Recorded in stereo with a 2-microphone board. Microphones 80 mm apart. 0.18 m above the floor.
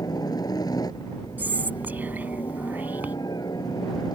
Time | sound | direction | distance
0.0 | a helicopter | 50° left (ahead or behind) | ?
1.4 | whispering | 20° right (ahead or behind) | ?